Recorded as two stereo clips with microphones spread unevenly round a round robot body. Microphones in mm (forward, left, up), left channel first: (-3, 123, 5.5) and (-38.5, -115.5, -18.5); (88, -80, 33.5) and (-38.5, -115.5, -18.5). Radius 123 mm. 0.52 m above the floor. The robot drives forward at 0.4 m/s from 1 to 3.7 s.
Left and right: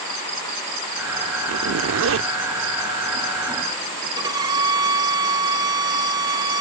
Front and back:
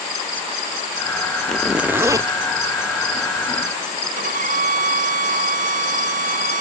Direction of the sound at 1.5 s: 85° right.